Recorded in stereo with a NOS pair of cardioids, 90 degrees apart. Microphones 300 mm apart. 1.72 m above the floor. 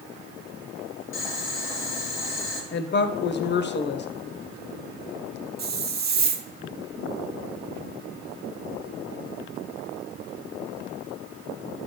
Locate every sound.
1.1 s boiling: 45° left, 1.8 m
2.7 s a woman speaking: 35° left, 0.8 m
5.6 s a hiss: 30° right, 0.8 m